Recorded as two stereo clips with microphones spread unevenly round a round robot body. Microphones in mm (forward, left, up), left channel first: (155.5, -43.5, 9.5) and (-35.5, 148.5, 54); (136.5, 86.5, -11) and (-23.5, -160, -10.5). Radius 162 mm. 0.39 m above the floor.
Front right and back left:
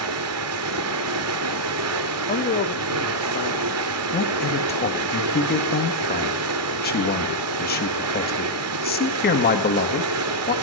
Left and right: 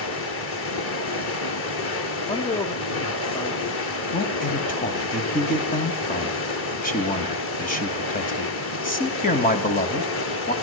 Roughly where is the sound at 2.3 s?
Ahead.